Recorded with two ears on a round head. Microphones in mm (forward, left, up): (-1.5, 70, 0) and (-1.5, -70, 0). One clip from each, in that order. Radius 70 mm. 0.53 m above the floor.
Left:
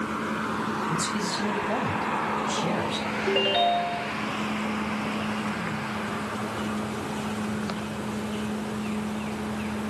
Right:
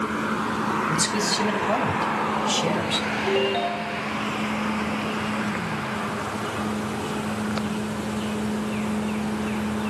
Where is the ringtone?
35° left (ahead or behind), 2 m.